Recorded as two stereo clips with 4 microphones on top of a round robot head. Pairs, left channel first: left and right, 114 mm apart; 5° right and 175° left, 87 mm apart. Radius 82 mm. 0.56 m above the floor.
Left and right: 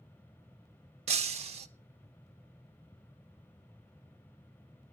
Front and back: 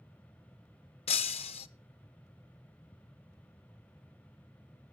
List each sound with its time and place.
1.1 s breaking glass: 40° right, 0.5 m